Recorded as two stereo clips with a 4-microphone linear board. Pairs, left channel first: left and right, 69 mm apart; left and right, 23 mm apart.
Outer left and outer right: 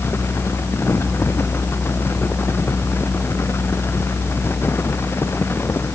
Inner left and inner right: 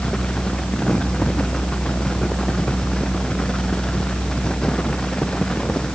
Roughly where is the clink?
No clink in this recording.